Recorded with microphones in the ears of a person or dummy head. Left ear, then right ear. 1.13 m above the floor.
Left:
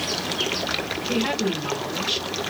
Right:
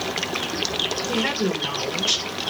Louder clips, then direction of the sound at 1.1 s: Right 1 dB; 70° right (ahead or behind).